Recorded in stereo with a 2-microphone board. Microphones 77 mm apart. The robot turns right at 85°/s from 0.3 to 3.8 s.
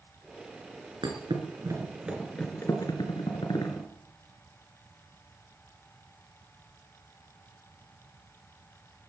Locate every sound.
1.0 s a thud: 80° right, 3 m; by 3.9 s 45° left (ahead or behind), 3 m